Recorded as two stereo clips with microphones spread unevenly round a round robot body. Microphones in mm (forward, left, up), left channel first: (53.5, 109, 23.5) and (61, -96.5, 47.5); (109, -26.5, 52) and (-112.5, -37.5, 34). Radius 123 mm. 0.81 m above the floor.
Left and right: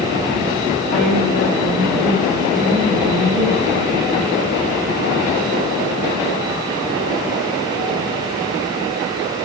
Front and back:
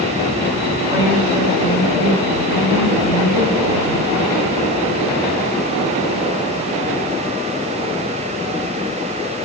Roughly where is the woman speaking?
Right.